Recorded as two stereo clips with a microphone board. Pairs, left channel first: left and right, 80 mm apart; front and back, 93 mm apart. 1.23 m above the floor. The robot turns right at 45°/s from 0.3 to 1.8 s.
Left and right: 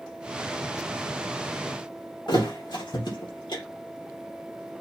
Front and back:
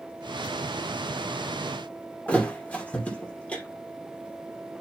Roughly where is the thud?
Left.